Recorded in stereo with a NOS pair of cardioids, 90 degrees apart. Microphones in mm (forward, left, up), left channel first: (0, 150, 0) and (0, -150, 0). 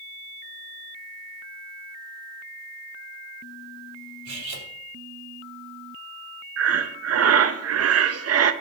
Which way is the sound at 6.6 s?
55° right.